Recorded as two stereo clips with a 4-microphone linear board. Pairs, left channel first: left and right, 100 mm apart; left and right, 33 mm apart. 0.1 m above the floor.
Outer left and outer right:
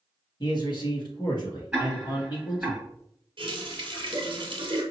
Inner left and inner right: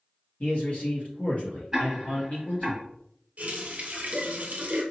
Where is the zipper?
No zipper in this recording.